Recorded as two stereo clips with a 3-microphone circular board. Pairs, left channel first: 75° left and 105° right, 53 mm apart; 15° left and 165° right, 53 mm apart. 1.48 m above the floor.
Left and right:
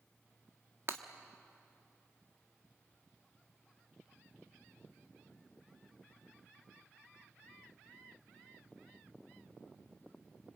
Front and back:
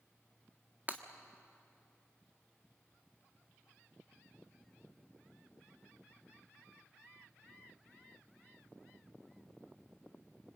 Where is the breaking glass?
115° right, 1.4 m.